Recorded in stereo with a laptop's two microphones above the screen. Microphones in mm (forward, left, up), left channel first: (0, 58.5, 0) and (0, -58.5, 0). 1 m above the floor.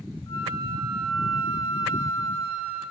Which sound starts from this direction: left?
A flute, at 0.3 s.